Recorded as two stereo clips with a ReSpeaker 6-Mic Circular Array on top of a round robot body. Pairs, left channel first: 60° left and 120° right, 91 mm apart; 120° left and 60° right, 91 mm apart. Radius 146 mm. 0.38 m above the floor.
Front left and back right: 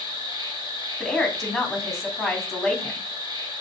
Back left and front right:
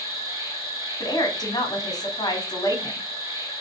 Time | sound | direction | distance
0.0 | an insect | 105° right | 2.5 m
1.0 | a woman speaking | 145° left | 1.8 m